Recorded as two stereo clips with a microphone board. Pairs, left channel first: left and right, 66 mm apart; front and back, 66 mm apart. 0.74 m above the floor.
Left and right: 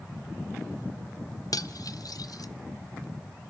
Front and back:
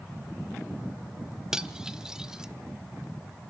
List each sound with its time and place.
1.5 s cutlery clinking: 100° left, 0.8 m